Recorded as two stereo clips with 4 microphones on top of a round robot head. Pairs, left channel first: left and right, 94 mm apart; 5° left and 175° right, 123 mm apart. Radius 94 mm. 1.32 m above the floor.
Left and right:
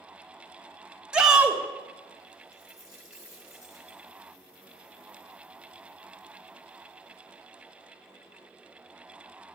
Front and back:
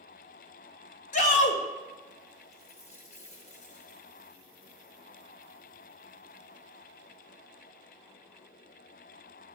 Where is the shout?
10° right, 1.4 m.